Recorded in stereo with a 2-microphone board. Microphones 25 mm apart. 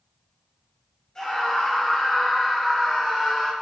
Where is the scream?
25° left (ahead or behind), 3 m; by 3.5 s centre (ahead or behind), 2.0 m.